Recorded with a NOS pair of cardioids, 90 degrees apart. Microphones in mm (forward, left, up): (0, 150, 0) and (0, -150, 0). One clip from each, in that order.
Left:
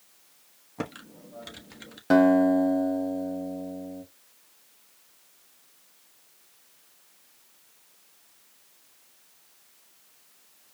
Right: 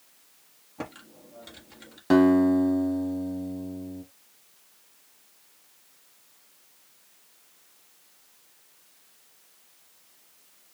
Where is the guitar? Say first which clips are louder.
Left 1 dB; 5° left, 1.4 m.